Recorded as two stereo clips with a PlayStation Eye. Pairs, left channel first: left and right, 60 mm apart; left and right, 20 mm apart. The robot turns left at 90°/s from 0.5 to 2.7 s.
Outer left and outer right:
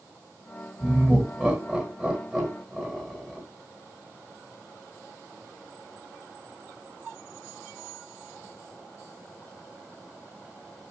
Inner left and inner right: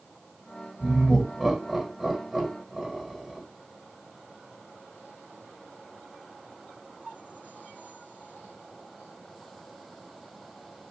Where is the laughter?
10° right (ahead or behind), 1.4 m; by 3.4 s 5° left (ahead or behind), 1.4 m.